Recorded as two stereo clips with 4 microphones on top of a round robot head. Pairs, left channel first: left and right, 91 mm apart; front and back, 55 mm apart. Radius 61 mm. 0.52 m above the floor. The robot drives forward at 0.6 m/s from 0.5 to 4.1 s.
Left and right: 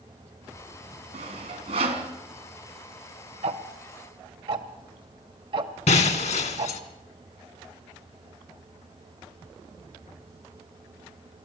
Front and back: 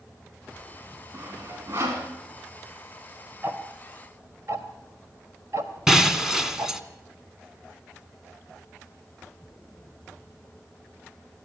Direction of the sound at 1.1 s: 110° right.